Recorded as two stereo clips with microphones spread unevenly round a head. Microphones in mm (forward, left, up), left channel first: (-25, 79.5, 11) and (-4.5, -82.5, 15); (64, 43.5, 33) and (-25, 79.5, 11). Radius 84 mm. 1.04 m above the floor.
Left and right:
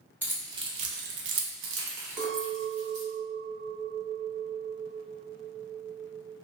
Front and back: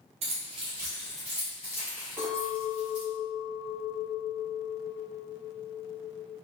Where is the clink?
110° right, 1.0 m.